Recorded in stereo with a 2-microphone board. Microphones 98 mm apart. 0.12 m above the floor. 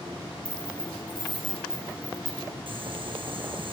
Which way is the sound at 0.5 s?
10° left (ahead or behind).